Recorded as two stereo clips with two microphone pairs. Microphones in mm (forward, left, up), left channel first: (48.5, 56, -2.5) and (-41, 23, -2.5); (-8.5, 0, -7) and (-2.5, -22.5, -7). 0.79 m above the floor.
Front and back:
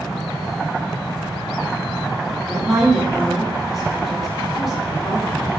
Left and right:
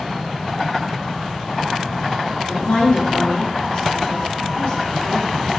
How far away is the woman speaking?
About 1.2 m.